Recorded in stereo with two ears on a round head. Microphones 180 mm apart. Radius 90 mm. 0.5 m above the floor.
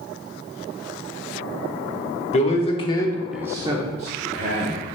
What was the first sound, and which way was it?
A man speaking, 35° left (ahead or behind).